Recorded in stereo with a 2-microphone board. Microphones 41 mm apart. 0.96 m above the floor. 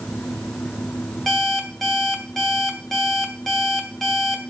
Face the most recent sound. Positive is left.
turn(degrees=5)  # may be behind; listen again after turning